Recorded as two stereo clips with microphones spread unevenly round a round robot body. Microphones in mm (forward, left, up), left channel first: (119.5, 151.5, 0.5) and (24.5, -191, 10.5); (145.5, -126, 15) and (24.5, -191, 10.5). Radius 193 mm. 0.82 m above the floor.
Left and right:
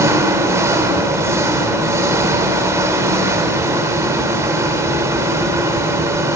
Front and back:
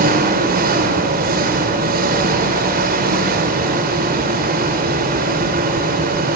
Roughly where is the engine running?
Behind.